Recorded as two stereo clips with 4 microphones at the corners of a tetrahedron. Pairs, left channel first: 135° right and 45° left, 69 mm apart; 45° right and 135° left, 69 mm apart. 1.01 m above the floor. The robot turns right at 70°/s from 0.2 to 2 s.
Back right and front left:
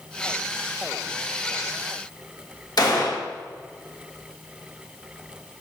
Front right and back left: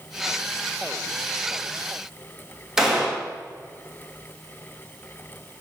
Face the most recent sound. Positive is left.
turn(degrees=-140)